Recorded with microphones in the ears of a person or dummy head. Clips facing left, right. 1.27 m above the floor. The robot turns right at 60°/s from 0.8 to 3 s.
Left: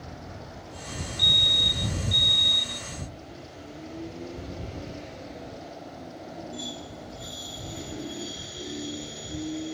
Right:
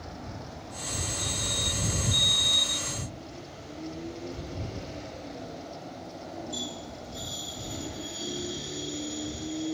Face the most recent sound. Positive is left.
turn(degrees=-170)